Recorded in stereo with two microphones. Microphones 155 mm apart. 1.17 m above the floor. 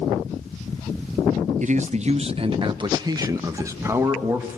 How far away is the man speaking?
About 0.6 m.